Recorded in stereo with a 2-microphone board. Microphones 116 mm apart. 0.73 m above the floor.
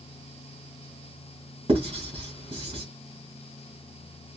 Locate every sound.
1.7 s writing: 50° right (ahead or behind), 2.5 m